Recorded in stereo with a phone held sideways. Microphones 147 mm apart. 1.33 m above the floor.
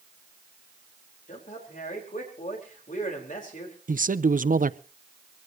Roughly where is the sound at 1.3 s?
Left.